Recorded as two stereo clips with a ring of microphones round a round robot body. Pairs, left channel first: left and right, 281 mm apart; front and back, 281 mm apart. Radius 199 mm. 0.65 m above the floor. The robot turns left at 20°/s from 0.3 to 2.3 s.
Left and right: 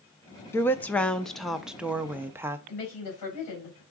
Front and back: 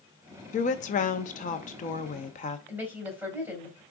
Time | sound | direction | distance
0.5 | a woman speaking | 20° left | 0.5 m
2.7 | a woman speaking | 95° left | 3.5 m